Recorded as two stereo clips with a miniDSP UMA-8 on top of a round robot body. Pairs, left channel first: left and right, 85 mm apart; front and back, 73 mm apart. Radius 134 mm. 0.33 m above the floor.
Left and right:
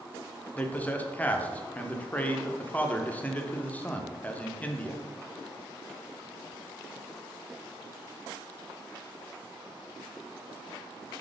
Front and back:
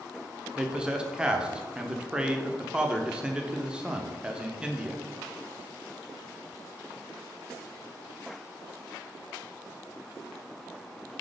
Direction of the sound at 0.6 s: 125° left.